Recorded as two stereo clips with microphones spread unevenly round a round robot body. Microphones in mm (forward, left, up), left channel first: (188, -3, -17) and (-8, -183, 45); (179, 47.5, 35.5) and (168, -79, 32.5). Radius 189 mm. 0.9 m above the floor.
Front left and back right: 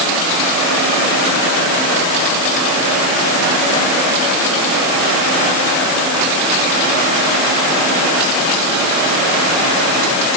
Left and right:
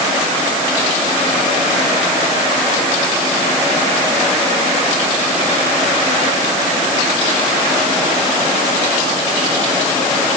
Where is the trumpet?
I don't hear a trumpet.